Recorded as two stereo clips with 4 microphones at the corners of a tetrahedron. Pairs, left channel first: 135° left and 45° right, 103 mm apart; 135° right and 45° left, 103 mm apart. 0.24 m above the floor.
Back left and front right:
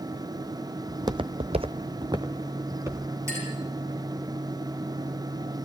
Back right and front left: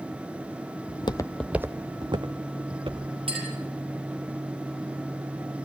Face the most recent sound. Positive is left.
turn(degrees=15)